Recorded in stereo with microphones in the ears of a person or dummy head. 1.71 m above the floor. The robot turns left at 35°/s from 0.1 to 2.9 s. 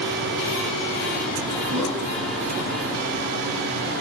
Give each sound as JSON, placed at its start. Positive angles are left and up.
{"t": 1.7, "sound": "a whoosh", "side_deg": -35, "distance_m": 1.7}